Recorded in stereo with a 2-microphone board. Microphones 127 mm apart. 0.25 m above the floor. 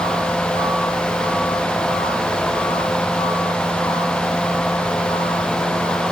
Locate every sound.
Only background noise.